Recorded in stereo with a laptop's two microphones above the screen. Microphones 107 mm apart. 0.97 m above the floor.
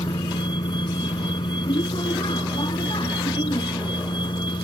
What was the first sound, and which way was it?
A vehicle, 50° left (ahead or behind).